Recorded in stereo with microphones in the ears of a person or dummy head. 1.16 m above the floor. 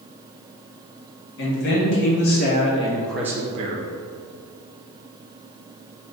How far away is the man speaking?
About 1.4 m.